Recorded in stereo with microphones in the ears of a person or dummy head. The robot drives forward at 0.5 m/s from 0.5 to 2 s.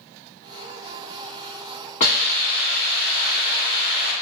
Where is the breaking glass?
No breaking glass in this recording.